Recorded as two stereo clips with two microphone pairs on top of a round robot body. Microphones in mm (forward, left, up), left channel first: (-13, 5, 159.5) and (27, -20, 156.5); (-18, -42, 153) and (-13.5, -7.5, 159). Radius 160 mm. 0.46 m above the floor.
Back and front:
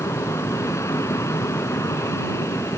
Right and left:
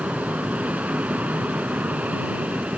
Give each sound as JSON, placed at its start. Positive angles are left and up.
{"t": 0.0, "sound": "an aircraft", "azimuth_deg": 130}